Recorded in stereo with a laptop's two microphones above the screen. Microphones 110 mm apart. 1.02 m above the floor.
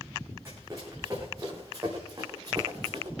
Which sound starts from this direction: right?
Running footsteps, at 0.5 s.